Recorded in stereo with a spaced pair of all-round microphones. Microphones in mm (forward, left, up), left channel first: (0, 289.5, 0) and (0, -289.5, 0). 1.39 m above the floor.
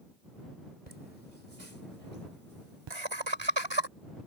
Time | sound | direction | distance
0.9 | laughter | 80° right | ?
2.9 | laughter | 50° right (ahead or behind) | ?